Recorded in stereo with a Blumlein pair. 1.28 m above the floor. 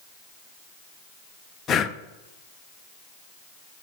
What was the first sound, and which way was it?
Breathing, 25° left.